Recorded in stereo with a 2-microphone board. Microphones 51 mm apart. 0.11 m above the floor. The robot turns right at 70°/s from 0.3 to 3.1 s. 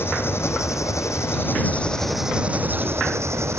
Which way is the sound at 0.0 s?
55° left.